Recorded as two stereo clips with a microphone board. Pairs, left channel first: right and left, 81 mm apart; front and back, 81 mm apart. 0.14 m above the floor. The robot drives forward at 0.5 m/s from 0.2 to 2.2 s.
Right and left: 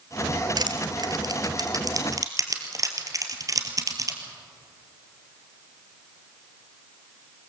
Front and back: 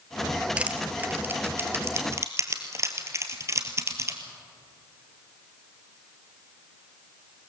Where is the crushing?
105° left, 1.8 m; by 4.2 s 130° left, 2 m.